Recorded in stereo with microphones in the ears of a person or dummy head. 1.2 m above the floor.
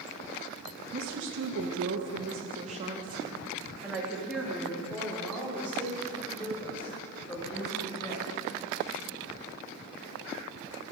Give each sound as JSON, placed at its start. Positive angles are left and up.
{"t": 0.9, "sound": "a woman speaking", "side_deg": -65, "distance_m": 1.9}